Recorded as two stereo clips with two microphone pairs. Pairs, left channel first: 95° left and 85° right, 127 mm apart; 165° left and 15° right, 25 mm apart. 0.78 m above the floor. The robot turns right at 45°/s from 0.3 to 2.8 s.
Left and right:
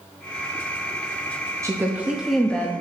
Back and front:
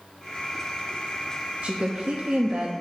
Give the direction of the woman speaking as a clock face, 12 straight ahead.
1 o'clock.